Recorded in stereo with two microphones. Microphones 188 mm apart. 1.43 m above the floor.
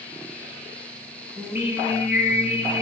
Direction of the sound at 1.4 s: 10° right (ahead or behind).